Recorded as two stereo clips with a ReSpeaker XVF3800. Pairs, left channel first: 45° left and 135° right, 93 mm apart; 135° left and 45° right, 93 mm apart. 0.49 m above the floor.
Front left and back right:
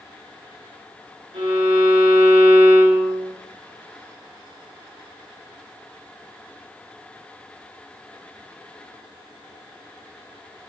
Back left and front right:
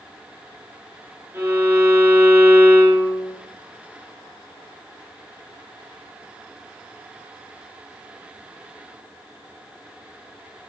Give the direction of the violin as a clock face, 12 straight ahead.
4 o'clock.